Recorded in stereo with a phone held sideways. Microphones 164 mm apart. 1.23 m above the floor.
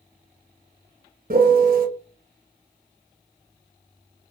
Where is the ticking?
No ticking in this recording.